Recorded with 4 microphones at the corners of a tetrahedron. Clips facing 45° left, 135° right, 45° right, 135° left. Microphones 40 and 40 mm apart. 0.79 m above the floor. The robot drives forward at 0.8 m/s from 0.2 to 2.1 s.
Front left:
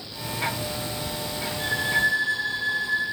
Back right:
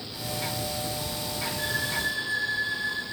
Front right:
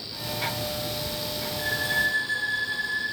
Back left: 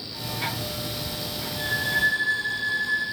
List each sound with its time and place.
1.6 s a violin: 85° left, 6 m